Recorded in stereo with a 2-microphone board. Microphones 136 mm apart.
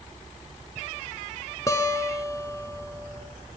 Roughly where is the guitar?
Left.